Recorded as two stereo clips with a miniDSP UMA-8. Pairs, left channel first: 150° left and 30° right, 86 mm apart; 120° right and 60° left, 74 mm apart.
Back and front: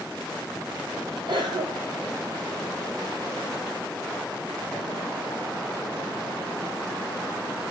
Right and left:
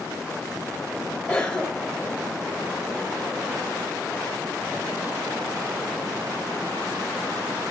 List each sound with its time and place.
1.3 s a cough: 45° right, 4 m